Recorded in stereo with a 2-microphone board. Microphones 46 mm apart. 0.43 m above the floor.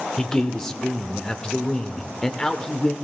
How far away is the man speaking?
About 0.9 m.